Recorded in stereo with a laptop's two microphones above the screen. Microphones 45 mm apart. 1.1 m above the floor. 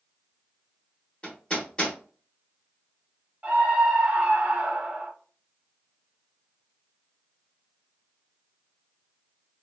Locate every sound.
1.2 s hammering: 25° left (ahead or behind), 1.1 m
3.4 s a scream: 20° right (ahead or behind), 0.9 m